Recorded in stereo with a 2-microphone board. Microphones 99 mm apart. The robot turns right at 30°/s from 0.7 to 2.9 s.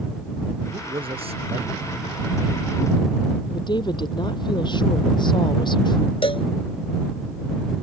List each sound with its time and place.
0.7 s a man speaking: 130° right; by 2.3 s 80° right
3.5 s a woman speaking: 45° left (ahead or behind)
6.2 s a cowbell: 55° left (ahead or behind)